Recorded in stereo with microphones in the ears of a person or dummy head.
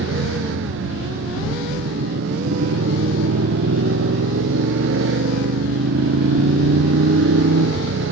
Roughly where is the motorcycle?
Right.